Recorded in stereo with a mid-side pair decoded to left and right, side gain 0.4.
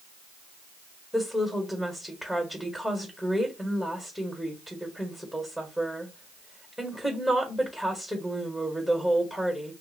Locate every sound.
1.1 s a woman speaking: 10° left, 1.5 m